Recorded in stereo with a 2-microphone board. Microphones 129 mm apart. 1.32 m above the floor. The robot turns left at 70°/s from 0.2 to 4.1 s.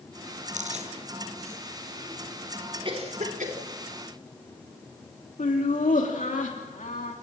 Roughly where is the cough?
Right.